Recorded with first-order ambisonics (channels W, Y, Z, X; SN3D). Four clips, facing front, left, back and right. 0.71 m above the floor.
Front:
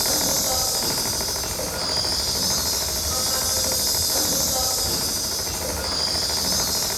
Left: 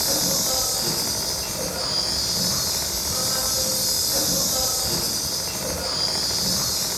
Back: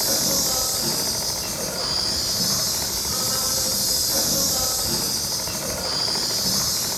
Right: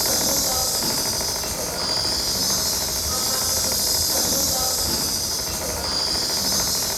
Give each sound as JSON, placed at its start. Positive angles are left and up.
{"t": 0.0, "sound": "an insect", "azimuth_deg": -105, "distance_m": 1.3}